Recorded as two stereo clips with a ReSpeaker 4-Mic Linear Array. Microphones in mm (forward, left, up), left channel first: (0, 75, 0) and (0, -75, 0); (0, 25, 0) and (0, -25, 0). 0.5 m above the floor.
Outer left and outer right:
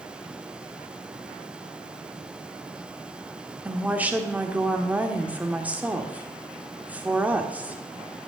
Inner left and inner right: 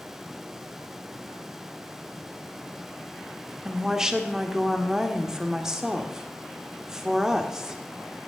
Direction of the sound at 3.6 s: 10° right (ahead or behind).